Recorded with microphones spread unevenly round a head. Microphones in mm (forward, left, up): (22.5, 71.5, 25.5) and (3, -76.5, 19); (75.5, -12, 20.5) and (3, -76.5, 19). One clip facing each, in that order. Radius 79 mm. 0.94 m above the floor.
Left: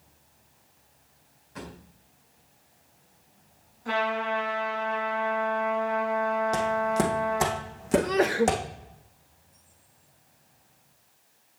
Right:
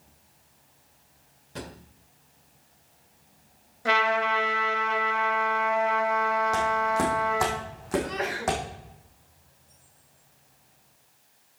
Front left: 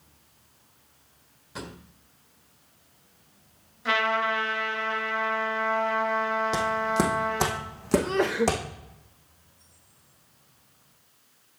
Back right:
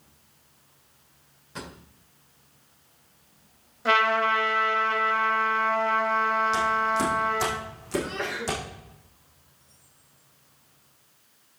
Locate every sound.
1.6 s a drawer: 45° right, 1.9 m
3.9 s a trumpet: 90° right, 3 m
6.5 s footsteps: 10° left, 2.5 m; by 8.6 s 25° left, 3.5 m
7.9 s a sneeze: 80° left, 0.6 m